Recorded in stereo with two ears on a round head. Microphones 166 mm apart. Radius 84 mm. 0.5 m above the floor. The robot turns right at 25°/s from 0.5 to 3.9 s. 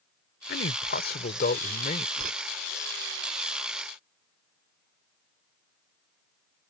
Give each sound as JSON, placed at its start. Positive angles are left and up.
{"t": 0.5, "sound": "a man speaking", "azimuth_deg": 85}
{"t": 2.2, "sound": "a whoosh", "side_deg": -50}